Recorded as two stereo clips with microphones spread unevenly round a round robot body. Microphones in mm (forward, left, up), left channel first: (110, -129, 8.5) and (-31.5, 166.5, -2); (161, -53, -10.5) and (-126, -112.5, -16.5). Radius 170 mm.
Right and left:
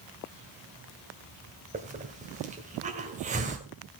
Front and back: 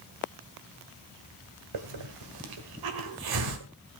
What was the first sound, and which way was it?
A hiss, 175° right.